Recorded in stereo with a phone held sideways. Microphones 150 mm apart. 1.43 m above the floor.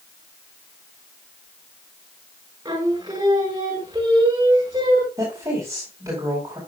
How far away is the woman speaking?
About 4.5 m.